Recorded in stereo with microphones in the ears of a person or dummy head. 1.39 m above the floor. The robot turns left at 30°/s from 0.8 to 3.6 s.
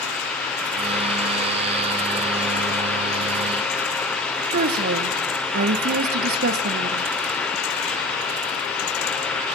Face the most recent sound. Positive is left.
turn(degrees=-50)  # may be behind; listen again after turning